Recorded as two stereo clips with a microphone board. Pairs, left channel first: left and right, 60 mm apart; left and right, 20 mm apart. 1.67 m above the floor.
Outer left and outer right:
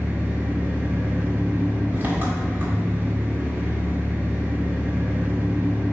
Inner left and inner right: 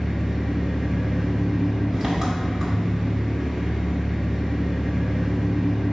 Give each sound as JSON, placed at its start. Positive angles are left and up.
{"t": 0.0, "sound": "an engine running", "side_deg": -35, "distance_m": 1.8}